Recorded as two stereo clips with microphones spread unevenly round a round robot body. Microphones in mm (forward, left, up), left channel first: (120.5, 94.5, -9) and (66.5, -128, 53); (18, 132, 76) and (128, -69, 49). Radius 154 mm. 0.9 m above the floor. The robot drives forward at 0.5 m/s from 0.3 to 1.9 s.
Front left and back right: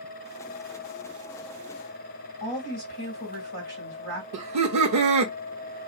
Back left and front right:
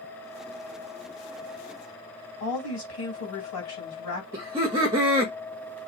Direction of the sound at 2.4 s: 120° left.